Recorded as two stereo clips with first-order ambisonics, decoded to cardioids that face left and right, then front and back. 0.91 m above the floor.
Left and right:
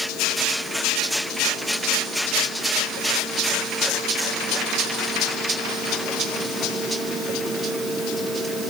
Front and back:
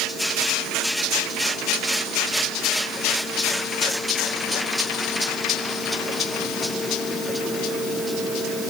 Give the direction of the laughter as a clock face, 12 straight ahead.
I don't hear laughter.